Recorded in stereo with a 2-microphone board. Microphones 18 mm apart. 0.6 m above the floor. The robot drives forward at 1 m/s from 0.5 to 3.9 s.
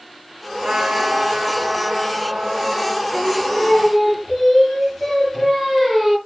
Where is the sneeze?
No sneeze in this recording.